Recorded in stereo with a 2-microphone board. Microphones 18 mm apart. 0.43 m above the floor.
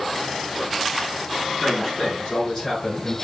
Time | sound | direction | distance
1.6 | a man speaking | 15° left (ahead or behind) | 4.5 m